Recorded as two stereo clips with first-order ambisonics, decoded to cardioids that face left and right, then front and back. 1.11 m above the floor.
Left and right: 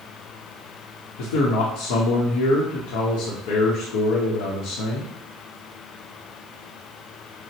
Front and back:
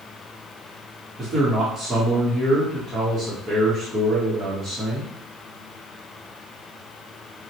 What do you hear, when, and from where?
1.2 s a man speaking: 100° left, 0.9 m